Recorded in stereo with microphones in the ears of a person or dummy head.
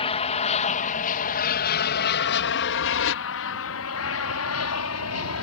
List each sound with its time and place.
0.0 s an aircraft: 30° left (ahead or behind); by 5.4 s 75° left (ahead or behind)